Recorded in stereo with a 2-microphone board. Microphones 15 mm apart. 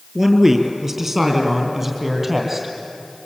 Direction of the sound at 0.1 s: 25° right (ahead or behind).